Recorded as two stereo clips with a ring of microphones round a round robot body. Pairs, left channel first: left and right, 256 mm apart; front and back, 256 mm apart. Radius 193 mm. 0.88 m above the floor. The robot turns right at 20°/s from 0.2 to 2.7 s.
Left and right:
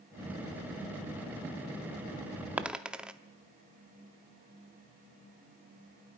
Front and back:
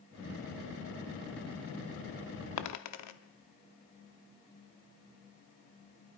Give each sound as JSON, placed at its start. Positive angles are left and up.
{"t": 2.6, "sound": "a dropped coin", "azimuth_deg": -5, "distance_m": 0.6}